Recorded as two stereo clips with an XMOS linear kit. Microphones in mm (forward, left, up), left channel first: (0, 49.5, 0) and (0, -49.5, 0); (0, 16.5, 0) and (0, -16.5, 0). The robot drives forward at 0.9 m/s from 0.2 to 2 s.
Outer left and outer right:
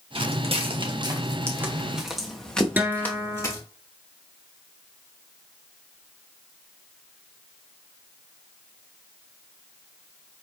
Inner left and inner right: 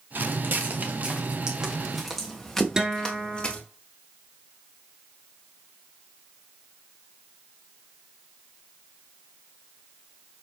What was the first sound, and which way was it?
Footsteps, 80° right.